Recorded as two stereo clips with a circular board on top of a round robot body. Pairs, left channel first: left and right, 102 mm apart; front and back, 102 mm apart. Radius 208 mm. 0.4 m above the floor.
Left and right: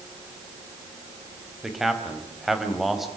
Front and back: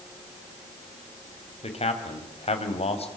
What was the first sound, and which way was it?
A man speaking, straight ahead.